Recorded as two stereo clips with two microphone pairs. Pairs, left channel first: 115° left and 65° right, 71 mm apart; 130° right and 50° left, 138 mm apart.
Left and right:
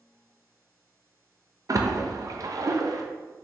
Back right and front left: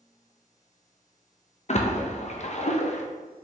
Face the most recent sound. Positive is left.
turn(degrees=-95)